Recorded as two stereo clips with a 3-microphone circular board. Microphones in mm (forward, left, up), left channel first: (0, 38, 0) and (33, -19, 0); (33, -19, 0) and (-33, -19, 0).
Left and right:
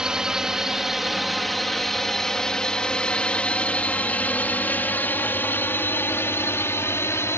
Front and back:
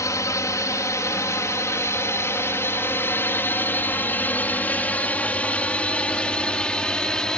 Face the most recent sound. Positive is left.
turn(degrees=80)